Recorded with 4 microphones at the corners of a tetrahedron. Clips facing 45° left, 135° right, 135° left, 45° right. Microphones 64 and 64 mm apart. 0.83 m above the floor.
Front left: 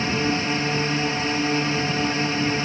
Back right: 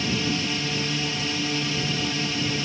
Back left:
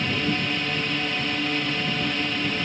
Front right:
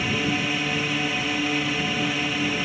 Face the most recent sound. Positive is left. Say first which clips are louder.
# front left 3 dB, front right 1 dB
turn(degrees=35)